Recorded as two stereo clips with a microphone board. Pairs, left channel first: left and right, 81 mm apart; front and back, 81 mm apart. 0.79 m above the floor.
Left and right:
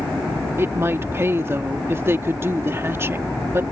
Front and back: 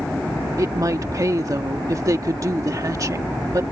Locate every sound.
0.6 s a woman speaking: 140° right